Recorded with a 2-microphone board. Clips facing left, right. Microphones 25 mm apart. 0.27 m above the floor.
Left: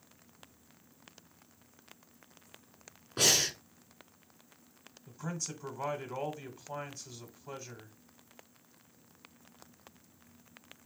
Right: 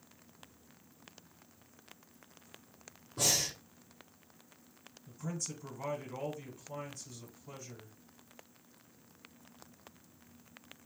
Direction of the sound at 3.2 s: 80° left.